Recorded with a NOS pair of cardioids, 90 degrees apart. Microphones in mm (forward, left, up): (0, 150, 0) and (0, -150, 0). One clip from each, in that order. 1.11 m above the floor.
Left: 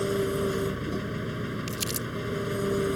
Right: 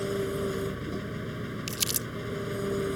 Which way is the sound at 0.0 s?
20° left.